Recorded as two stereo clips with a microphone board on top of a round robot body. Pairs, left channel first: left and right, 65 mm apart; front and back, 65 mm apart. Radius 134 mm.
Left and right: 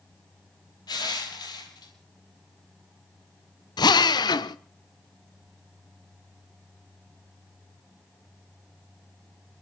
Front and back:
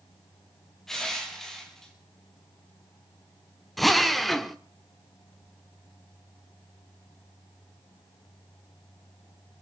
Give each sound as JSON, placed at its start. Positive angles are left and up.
{"t": 0.9, "sound": "crushing", "azimuth_deg": 85, "distance_m": 4.5}
{"t": 3.8, "sound": "a drill", "azimuth_deg": 90, "distance_m": 1.0}